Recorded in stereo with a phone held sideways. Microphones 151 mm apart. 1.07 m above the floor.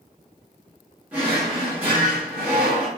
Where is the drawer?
10° right (ahead or behind), 1.1 m.